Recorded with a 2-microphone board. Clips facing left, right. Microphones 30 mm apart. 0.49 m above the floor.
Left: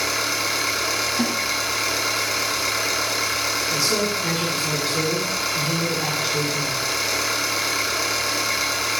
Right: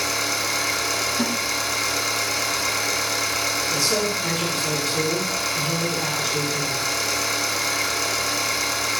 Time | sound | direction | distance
0.0 | an engine running | 25° left (ahead or behind) | 0.8 m
1.2 | a snare drum | 60° left (ahead or behind) | 1.1 m
3.7 | a man speaking | 20° left (ahead or behind) | 1.3 m